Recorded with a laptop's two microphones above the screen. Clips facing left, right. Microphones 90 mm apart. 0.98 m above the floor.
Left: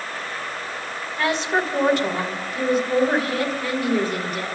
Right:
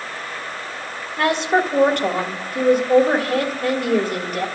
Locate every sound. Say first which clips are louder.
1.2 s a woman speaking: right 4 dB; 55° right (ahead or behind), 3 m